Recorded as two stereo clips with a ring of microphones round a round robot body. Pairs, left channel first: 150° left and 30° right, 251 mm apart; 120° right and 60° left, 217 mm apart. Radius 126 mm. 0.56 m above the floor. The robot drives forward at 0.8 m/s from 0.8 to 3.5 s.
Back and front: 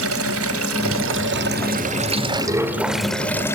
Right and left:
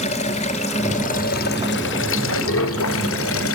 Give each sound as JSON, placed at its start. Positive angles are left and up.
{"t": 0.0, "sound": "running water", "azimuth_deg": -55, "distance_m": 1.9}